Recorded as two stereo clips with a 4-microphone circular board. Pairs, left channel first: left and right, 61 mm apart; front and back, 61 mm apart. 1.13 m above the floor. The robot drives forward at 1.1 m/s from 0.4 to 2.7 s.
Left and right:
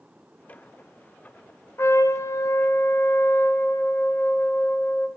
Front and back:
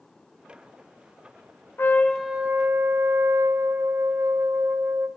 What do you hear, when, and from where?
1.8 s a trumpet: 50° left, 0.8 m; by 5.1 s 135° left, 0.8 m